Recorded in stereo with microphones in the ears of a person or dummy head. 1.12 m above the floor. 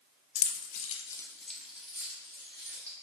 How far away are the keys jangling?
About 0.6 m.